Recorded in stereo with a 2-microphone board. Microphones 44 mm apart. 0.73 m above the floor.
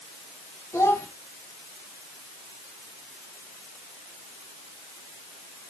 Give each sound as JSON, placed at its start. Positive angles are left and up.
{"t": 0.7, "sound": "a child speaking", "side_deg": 85, "distance_m": 2.5}